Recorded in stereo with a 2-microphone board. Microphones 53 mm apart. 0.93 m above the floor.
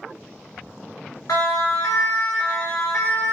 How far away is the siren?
About 2.5 m.